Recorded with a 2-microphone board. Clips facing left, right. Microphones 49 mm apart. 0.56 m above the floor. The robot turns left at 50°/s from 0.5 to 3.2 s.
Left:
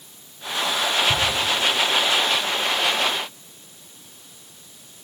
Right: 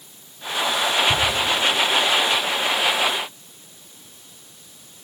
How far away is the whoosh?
About 6.5 m.